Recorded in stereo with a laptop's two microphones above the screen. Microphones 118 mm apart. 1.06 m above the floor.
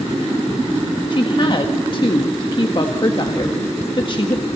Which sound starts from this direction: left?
A woman speaking, at 1.1 s.